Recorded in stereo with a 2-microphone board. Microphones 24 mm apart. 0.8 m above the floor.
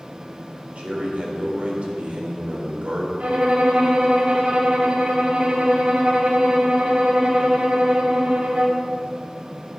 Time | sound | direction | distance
0.8 | a man speaking | 65° right (ahead or behind) | 3.5 m
3.2 | a violin | 65° right (ahead or behind) | 2 m